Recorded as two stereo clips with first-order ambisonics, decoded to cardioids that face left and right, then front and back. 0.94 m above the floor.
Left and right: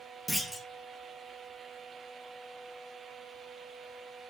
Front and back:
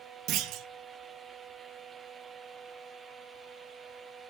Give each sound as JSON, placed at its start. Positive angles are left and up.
{"t": 0.3, "sound": "a clunk", "azimuth_deg": 175, "distance_m": 0.7}